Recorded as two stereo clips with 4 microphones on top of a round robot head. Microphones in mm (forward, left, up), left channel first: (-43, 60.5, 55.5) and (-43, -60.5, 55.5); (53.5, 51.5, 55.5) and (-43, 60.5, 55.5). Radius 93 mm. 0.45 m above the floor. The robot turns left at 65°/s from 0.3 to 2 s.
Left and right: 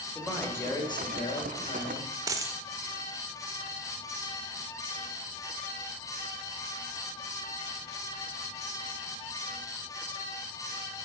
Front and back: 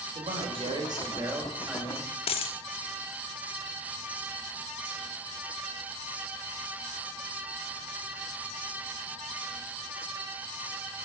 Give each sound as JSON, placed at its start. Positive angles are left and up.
{"t": 0.1, "sound": "a man speaking", "azimuth_deg": 175, "distance_m": 2.0}
{"t": 2.3, "sound": "a dropped coin", "azimuth_deg": -25, "distance_m": 0.5}